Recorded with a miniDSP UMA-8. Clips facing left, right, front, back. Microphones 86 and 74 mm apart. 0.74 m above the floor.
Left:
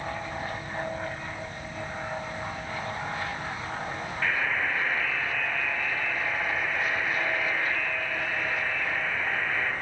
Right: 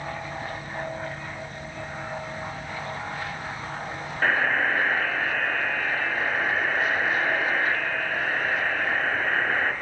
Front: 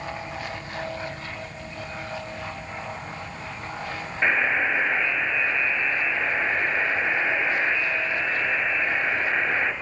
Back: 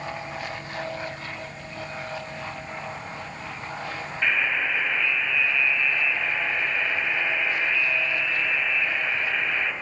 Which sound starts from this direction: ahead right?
A buzzer, at 4.2 s.